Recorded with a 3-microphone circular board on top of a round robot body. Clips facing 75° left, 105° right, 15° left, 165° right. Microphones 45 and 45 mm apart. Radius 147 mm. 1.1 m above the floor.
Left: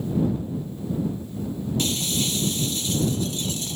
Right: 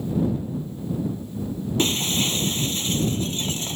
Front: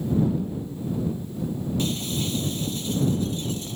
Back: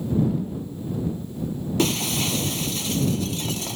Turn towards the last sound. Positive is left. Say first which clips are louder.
# right 5 dB, back 8 dB
turn(degrees=-160)